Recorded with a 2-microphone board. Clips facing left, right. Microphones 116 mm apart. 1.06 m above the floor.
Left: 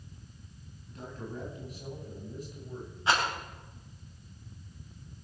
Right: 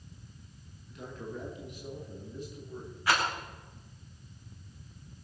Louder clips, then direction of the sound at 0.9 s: Even; 40° left (ahead or behind).